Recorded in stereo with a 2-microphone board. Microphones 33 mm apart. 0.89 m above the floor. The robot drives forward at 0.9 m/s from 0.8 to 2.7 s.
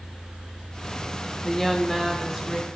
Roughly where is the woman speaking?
Centre.